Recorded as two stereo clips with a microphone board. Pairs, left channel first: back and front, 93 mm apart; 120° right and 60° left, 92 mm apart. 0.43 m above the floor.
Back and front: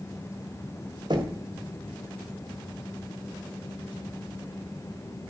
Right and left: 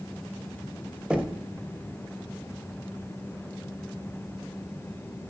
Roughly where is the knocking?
Ahead.